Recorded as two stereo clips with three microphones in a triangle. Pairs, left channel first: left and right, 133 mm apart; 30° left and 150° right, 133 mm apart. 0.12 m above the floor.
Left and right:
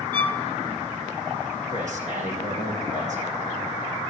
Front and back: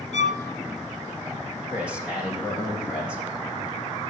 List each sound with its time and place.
0.1 s a violin: 15° left, 1.0 m
1.7 s a man speaking: 70° right, 5 m